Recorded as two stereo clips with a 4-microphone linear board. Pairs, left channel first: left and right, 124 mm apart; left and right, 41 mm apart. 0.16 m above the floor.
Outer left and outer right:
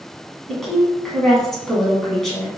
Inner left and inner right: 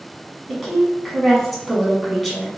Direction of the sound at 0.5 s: 5° left (ahead or behind).